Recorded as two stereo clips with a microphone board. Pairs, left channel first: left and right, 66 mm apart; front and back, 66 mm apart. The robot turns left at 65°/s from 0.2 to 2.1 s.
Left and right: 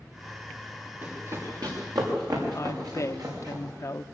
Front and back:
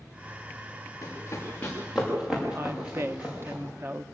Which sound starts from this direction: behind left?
A woman speaking, at 2.5 s.